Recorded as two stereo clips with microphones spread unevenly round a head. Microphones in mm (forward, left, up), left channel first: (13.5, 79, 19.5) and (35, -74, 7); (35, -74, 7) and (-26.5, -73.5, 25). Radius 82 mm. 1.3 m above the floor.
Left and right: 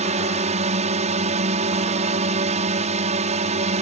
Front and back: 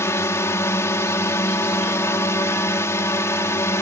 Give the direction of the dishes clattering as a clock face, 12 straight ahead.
No dishes clattering in this recording.